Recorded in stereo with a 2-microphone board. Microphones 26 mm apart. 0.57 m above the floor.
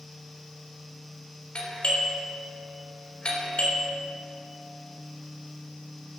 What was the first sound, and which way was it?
A doorbell, 50° left (ahead or behind).